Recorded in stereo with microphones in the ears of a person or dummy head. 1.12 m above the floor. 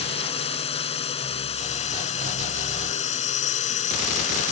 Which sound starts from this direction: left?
A drone, at 0.0 s.